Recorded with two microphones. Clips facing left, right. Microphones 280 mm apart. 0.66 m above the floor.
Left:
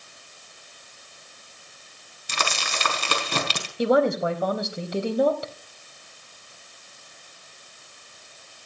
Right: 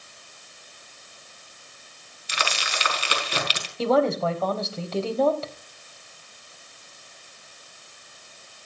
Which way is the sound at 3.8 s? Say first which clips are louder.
Left 1 dB; 15° left (ahead or behind).